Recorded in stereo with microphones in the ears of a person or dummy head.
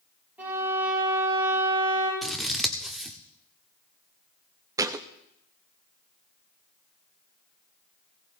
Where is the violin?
10° right (ahead or behind), 7.5 m.